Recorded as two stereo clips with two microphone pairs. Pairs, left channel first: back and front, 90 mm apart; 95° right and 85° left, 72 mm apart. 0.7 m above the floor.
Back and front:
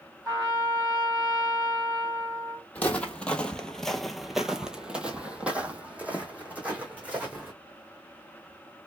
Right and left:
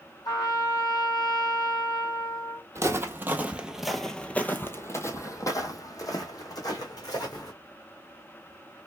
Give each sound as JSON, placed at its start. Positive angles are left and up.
{"t": 0.2, "sound": "a trumpet", "azimuth_deg": -70, "distance_m": 3.0}
{"t": 2.8, "sound": "footsteps", "azimuth_deg": 110, "distance_m": 1.0}